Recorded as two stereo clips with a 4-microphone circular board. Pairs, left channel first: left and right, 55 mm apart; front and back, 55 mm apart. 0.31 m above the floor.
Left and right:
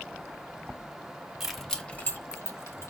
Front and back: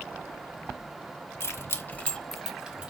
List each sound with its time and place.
1.4 s keys jangling: 5° right, 1.2 m; by 2.9 s 110° left, 1.4 m